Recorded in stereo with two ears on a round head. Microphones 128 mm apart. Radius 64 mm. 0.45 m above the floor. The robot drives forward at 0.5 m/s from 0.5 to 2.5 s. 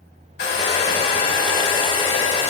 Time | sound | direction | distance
0.4 | a hair dryer | 80° left | 1.4 m